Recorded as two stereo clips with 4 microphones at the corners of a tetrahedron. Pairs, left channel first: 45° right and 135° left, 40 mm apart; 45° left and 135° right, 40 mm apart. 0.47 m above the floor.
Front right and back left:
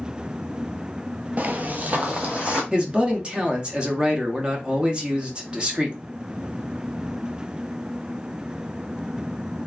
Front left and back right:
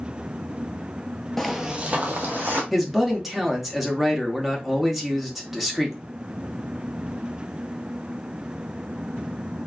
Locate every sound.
1.4 s footsteps: 125° left, 0.5 m; by 2.6 s 170° right, 1.4 m
2.7 s a man speaking: 145° left, 0.8 m